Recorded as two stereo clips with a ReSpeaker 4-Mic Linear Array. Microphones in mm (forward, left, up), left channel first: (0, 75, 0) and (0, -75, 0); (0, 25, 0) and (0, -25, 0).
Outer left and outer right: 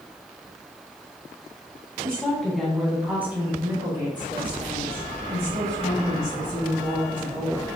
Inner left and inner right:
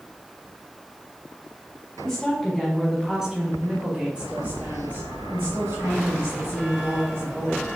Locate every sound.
2.0 s a woman speaking: 5° left (ahead or behind), 1.9 m; by 7.7 s 55° right (ahead or behind), 3 m